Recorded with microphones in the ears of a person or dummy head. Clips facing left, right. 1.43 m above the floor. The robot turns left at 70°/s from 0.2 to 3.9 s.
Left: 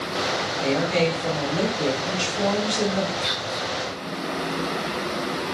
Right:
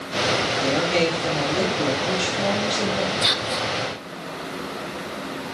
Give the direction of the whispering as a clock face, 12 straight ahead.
3 o'clock.